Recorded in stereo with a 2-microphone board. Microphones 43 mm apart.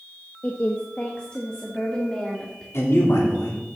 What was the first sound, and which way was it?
A woman speaking, 40° left (ahead or behind).